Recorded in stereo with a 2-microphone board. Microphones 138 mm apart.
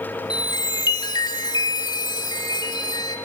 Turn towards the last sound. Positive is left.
turn(degrees=35)  # may be behind; listen again after turning